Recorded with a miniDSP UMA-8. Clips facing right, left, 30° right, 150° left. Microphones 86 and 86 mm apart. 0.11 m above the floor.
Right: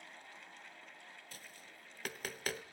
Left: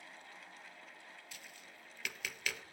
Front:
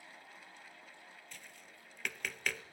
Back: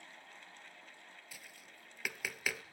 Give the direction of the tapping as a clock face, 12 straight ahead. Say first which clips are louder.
Even, front 1 dB; 4 o'clock.